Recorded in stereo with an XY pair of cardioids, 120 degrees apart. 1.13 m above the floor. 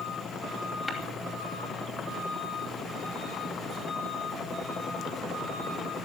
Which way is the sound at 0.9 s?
10° left.